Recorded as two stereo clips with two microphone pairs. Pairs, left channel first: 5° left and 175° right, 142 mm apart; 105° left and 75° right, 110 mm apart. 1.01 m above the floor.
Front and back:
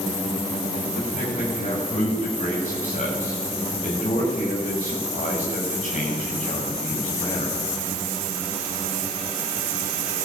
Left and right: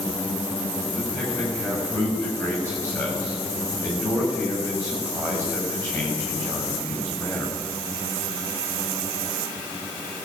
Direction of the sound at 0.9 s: 35° left.